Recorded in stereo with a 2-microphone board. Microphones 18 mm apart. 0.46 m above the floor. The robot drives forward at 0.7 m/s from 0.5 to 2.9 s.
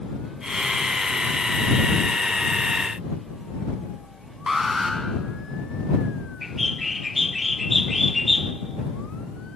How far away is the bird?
About 1.0 m.